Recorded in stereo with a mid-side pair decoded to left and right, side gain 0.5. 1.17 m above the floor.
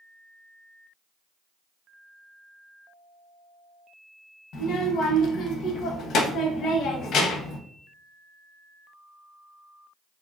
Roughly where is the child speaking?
Ahead left.